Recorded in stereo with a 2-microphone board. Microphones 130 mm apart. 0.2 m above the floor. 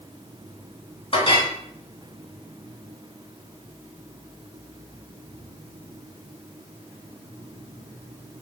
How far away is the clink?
About 1.3 m.